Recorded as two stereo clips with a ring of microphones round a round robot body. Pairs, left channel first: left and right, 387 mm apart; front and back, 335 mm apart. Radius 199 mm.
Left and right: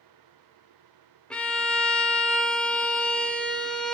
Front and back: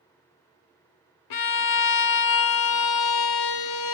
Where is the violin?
Straight ahead, 0.7 m.